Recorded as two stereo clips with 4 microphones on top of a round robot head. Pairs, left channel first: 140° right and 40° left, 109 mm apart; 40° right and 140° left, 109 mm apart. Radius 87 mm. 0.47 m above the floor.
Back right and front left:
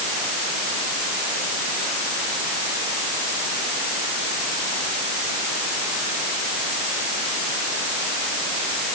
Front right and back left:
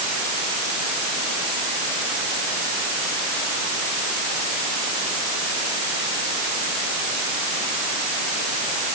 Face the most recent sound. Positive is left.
No sound to turn to.